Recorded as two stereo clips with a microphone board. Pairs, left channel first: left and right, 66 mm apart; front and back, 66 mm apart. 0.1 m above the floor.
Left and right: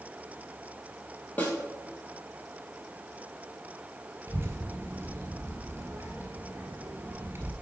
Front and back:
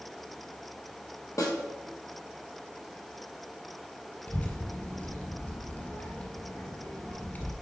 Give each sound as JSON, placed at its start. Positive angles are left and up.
{"t": 1.4, "sound": "a snare drum", "azimuth_deg": 25, "distance_m": 1.9}
{"t": 4.3, "sound": "a child speaking", "azimuth_deg": -55, "distance_m": 1.6}